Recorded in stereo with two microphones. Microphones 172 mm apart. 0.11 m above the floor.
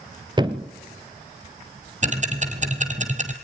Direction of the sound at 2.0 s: 45° right (ahead or behind).